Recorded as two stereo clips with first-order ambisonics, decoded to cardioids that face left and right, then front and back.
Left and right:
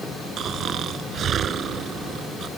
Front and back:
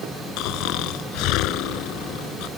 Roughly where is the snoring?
Ahead right.